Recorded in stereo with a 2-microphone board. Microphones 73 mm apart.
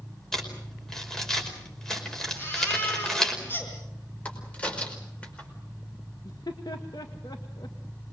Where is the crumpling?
5° left (ahead or behind), 5 m.